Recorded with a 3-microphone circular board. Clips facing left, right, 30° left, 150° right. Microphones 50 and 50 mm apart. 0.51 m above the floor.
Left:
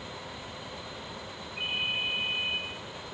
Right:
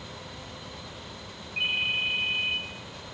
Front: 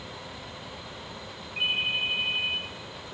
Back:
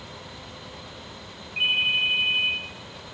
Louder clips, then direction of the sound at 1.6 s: Right 4 dB, back 5 dB; 85° right.